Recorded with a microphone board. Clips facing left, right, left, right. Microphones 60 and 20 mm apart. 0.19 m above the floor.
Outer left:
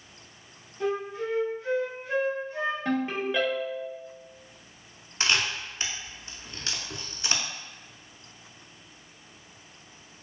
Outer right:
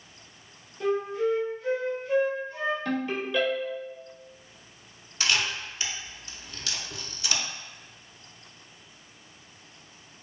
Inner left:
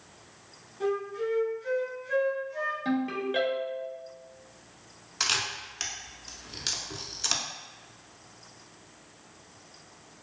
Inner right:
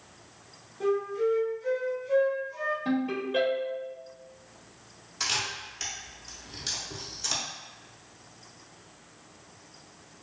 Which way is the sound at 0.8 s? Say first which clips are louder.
Outer right 3 dB, inner right 3 dB; 5° left (ahead or behind).